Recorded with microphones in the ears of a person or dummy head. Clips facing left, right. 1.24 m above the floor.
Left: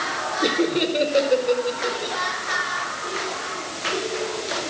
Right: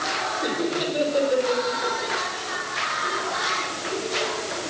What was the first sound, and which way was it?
Laughter, 40° left (ahead or behind).